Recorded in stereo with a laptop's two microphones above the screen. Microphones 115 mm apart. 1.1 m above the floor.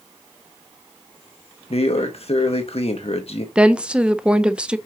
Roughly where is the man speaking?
Left.